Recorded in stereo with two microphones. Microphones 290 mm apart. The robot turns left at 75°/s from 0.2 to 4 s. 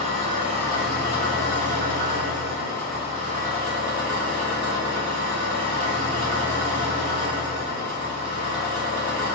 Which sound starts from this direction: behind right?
An engine running, at 0.0 s.